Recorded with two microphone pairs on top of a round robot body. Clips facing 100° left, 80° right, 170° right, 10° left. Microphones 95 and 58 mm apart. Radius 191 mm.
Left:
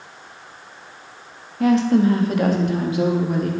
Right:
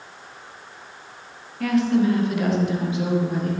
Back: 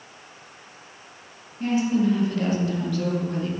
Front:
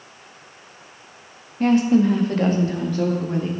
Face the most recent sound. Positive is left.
turn(degrees=75)